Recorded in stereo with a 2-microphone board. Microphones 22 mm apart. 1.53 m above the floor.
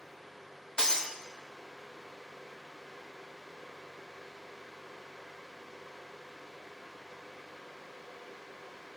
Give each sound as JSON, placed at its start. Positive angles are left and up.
{"t": 0.8, "sound": "breaking glass", "side_deg": 35, "distance_m": 1.8}